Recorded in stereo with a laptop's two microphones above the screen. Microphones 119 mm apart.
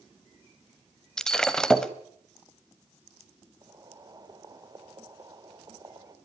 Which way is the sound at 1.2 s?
5° left (ahead or behind).